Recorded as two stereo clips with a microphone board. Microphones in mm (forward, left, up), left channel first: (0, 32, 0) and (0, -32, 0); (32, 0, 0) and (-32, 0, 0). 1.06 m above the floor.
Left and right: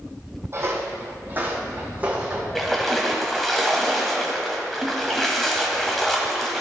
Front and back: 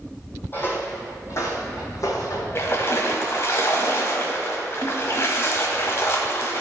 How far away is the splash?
About 1.1 m.